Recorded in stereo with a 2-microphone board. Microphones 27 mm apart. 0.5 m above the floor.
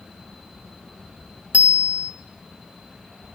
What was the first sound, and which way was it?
A bicycle bell, 70° right (ahead or behind).